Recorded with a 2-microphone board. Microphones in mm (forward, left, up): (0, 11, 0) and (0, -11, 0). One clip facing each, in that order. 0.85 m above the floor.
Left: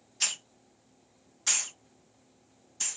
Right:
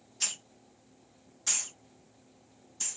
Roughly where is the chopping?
I don't hear chopping.